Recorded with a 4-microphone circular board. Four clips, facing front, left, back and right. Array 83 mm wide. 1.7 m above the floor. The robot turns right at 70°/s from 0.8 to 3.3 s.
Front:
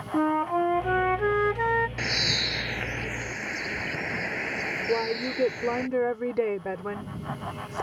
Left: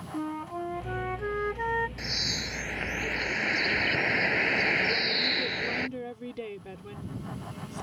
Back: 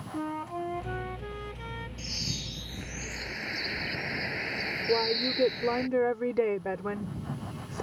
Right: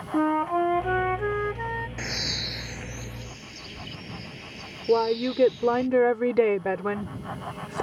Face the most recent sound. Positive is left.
turn(degrees=-90)